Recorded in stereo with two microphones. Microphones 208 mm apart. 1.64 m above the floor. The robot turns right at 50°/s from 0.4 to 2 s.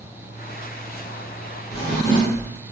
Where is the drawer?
15° left (ahead or behind), 2.0 m; by 2.5 s 5° left (ahead or behind), 2.0 m.